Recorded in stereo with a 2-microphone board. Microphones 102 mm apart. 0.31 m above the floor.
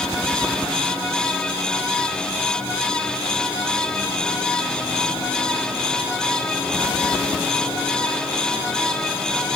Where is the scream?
No scream in this recording.